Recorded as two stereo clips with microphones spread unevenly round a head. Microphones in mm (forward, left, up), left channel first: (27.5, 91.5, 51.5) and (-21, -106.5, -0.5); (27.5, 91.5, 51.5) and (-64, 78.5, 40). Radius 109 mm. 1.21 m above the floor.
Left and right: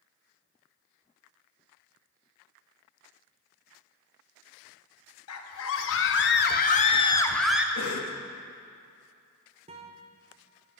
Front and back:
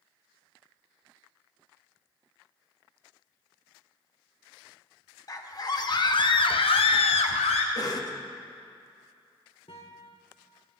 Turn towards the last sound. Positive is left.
turn(degrees=-35)